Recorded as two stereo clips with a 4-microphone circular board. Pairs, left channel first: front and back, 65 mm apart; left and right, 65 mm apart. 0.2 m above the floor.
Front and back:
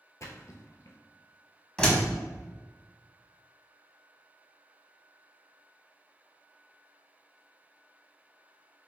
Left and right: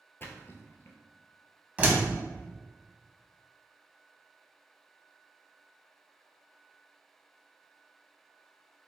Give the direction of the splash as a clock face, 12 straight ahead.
11 o'clock.